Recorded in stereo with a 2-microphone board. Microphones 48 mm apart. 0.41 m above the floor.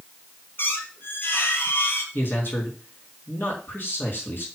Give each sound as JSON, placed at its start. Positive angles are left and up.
{"t": 0.6, "sound": "a squeak", "side_deg": 55, "distance_m": 2.0}
{"t": 2.1, "sound": "a man speaking", "side_deg": 60, "distance_m": 5.0}